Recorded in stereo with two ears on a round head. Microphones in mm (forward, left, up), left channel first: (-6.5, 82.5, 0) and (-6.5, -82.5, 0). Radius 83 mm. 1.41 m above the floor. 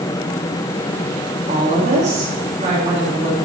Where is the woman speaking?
35° right (ahead or behind), 2.5 m.